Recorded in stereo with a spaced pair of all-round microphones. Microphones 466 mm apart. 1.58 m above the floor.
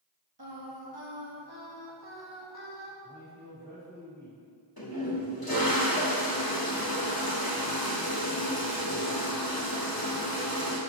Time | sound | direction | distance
0.4 | singing | 55° right (ahead or behind) | 1.5 m
3.0 | a man speaking | 80° right | 3 m
4.8 | a toilet flushing | 50° left (ahead or behind) | 2 m